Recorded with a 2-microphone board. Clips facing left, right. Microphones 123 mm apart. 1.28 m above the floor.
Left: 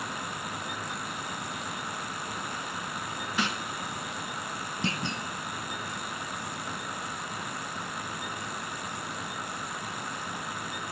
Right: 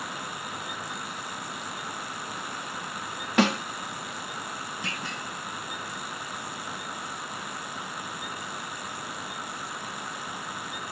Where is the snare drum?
80° right.